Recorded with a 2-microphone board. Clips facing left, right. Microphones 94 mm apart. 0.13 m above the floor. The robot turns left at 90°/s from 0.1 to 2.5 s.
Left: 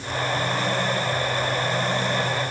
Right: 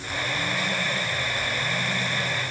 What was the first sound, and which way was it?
Only background noise.